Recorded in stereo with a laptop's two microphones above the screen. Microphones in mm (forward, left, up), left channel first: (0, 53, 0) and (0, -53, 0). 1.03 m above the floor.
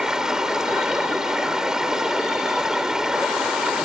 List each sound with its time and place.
0.0 s running water: 5° right (ahead or behind)